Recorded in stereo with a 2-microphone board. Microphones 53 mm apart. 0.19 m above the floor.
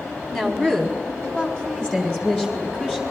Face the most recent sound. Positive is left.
turn(degrees=15)  # may be behind; listen again after turning